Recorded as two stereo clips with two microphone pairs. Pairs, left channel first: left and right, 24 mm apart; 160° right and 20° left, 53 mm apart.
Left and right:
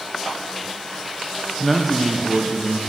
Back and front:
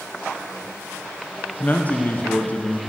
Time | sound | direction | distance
1.6 | a man speaking | 170° right | 0.6 m